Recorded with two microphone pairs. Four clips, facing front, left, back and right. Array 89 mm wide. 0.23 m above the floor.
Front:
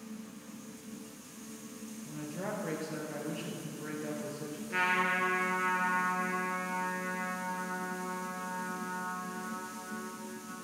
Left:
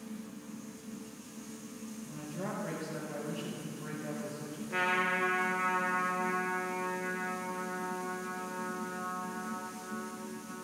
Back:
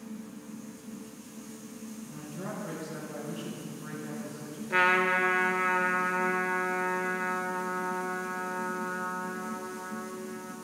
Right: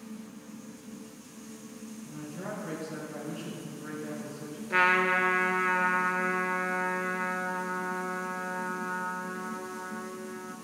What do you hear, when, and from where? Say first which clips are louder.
2.0 s a woman speaking: right 1 dB, front 3 dB; 10° left, 4 m
4.7 s a trumpet: right 7 dB, back 6 dB; 135° right, 1.2 m